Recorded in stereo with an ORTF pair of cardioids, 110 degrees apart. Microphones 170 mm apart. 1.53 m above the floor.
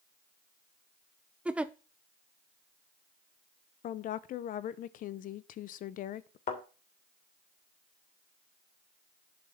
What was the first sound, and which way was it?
A giggle, 5° right.